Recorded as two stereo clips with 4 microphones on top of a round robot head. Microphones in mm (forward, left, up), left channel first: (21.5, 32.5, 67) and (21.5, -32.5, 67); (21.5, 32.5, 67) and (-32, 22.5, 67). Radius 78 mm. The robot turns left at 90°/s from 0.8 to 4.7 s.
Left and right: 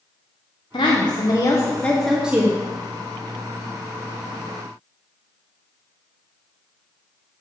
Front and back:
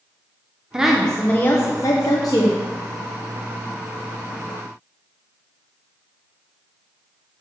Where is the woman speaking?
115° left, 0.8 m; by 2.6 s 50° right, 0.8 m.